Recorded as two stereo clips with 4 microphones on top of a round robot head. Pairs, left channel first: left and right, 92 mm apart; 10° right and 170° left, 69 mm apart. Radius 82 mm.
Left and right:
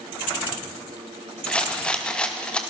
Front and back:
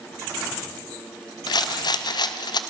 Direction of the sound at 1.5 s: 10° left.